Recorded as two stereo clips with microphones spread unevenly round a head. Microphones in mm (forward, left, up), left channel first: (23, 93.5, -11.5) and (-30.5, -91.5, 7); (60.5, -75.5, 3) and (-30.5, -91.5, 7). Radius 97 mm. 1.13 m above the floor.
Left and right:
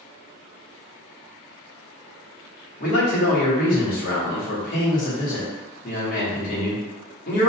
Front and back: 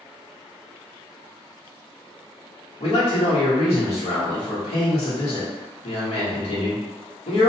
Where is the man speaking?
25° left, 1.2 m.